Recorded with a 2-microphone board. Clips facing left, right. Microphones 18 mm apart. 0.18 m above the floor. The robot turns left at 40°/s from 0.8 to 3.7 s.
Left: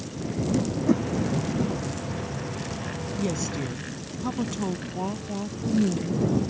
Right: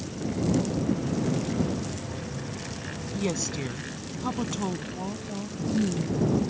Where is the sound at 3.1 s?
30° right (ahead or behind); by 4.8 s 15° right (ahead or behind).